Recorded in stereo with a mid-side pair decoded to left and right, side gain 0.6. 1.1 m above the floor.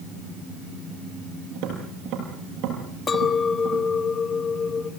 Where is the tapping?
65° right, 8 m.